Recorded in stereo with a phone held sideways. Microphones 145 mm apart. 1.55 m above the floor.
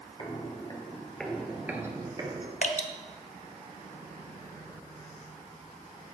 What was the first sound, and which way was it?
Footsteps, 40° left (ahead or behind).